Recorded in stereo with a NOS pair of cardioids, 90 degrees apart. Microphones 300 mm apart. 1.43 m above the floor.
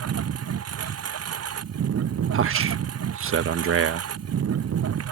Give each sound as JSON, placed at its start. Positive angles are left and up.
{"t": 0.0, "sound": "a lawn mower", "azimuth_deg": -55}
{"t": 2.3, "sound": "a man speaking", "azimuth_deg": -50}